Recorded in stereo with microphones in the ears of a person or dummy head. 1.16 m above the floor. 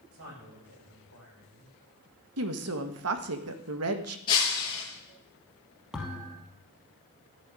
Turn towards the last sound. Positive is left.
turn(degrees=-5)  # may be behind; listen again after turning